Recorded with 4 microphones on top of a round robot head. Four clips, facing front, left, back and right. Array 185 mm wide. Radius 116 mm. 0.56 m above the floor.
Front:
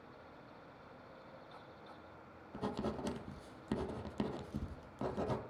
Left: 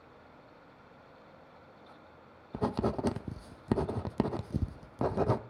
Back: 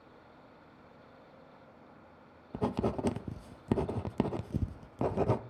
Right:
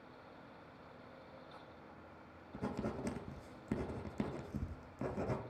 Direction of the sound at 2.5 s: 130° left.